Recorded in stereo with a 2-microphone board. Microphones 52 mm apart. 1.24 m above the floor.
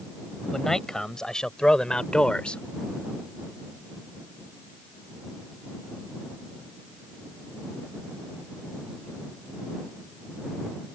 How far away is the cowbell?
I don't hear a cowbell.